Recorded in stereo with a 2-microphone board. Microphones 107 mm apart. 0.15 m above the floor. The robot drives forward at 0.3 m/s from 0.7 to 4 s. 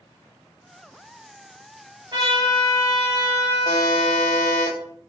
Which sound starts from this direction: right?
A trumpet, at 2.1 s.